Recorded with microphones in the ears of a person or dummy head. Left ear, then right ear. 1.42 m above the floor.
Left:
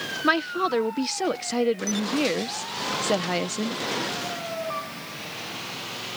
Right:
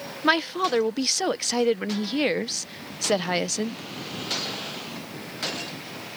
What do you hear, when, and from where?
0.2 s a woman speaking: 20° right (ahead or behind)